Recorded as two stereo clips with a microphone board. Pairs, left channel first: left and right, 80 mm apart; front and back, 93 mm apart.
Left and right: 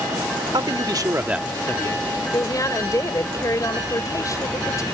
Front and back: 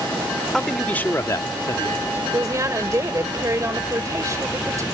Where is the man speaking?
85° right; by 2.2 s 55° left.